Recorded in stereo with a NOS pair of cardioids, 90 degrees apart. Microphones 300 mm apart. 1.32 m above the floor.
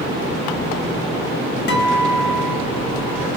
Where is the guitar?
40° left, 1.2 m.